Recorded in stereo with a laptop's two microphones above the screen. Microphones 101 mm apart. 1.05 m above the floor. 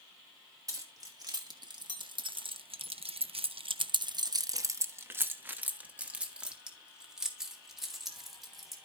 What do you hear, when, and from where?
0.7 s keys jangling: 35° right (ahead or behind), 1.6 m; by 8.8 s centre (ahead or behind), 3 m